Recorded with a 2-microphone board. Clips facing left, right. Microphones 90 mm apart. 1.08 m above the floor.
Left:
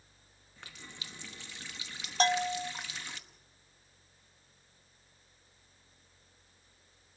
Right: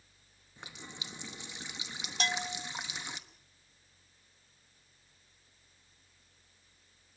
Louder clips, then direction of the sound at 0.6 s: Right 2 dB; 20° right (ahead or behind).